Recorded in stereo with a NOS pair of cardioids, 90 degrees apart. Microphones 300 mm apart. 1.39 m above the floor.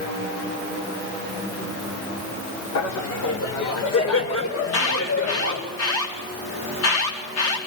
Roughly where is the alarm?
Ahead left.